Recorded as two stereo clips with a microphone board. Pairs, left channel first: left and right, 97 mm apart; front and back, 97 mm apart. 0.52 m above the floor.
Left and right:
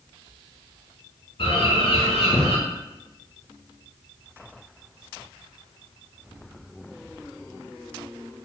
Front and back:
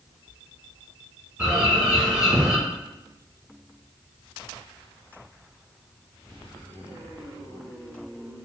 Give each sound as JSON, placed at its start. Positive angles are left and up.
{"t": 1.4, "sound": "a bird", "azimuth_deg": 100, "distance_m": 1.3}